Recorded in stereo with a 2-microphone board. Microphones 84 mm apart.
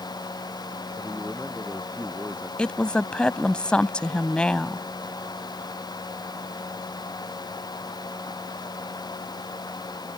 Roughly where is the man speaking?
Centre.